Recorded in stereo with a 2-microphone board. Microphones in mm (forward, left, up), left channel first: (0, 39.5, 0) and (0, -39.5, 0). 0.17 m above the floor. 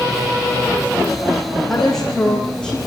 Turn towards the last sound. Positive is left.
turn(degrees=10)  # may be behind; listen again after turning